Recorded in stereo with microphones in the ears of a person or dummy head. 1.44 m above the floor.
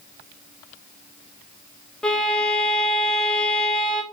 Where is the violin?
Centre (ahead or behind), 1.3 m.